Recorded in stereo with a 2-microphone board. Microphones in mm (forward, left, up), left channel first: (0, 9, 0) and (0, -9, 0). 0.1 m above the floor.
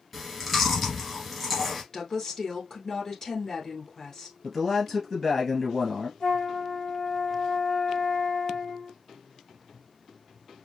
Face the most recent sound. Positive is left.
turn(degrees=60)  # may be behind; listen again after turning